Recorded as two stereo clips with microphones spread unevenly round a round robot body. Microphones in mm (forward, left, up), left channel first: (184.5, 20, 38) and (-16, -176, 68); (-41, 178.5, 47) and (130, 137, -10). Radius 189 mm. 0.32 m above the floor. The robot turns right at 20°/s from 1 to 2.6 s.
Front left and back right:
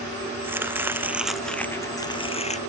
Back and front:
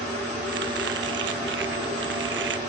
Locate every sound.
0.4 s chopping: 55° right; by 2.6 s 20° right